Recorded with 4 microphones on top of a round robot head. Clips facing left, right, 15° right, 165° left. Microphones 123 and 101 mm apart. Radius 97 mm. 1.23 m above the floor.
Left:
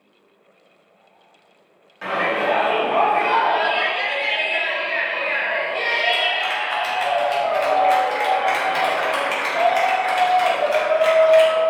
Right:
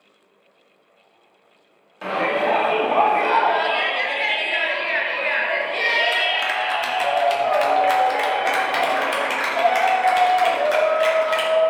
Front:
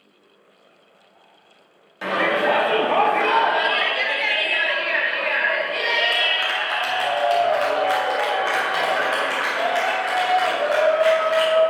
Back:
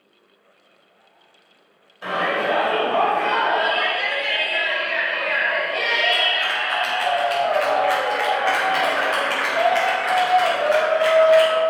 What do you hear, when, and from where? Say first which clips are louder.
2.0 s a shout: right 1 dB, front 2 dB; 20° right, 2.5 m; by 11.6 s 105° right, 4.5 m